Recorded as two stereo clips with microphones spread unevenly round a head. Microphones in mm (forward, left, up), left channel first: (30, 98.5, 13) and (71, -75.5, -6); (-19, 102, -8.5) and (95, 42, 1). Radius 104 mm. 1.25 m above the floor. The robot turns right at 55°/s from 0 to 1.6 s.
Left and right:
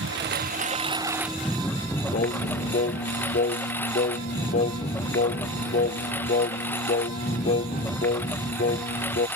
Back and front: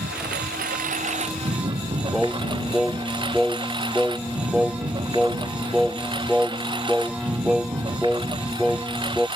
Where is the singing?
60° left.